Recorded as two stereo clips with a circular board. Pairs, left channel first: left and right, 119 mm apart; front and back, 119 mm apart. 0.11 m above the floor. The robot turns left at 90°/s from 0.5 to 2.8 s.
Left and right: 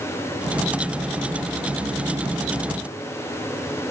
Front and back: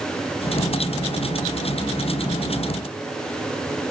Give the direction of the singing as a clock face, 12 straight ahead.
I don't hear singing.